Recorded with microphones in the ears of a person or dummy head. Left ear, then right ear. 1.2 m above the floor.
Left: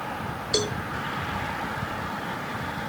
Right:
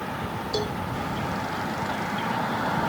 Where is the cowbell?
60° left (ahead or behind).